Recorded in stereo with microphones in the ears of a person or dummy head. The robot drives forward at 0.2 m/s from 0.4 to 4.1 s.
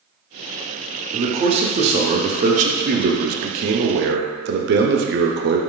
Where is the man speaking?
30° right (ahead or behind), 0.9 m; by 5.6 s 55° right (ahead or behind), 0.5 m.